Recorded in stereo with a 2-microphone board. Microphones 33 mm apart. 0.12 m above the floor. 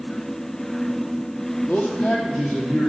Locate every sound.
1.7 s a man speaking: 65° left (ahead or behind), 3 m; by 2.9 s 70° left (ahead or behind), 4 m